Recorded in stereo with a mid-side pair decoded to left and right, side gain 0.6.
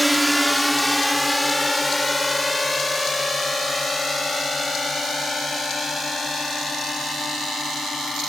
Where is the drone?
5° right; by 8.3 s 25° left.